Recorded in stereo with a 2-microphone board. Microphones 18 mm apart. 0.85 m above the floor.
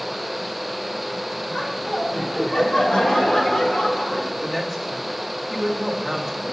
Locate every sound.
1.5 s laughter: 40° left (ahead or behind), 1.5 m; by 4.3 s 75° left (ahead or behind), 2.5 m
4.4 s a woman speaking: 5° left (ahead or behind), 1.9 m